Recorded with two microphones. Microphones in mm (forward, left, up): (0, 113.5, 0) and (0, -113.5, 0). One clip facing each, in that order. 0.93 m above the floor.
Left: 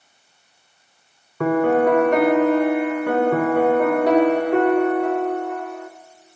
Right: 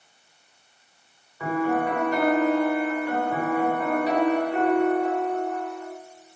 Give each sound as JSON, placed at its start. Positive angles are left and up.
{"t": 1.4, "sound": "a piano", "side_deg": 70, "distance_m": 3.0}